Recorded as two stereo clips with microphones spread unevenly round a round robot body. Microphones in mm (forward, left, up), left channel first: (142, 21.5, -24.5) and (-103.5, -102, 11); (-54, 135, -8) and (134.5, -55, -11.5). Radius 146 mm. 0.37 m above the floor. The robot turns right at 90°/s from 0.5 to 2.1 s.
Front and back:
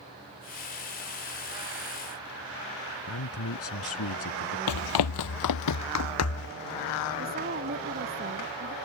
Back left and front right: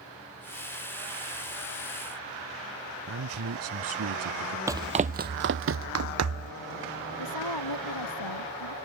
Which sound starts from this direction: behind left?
A woman speaking, at 7.2 s.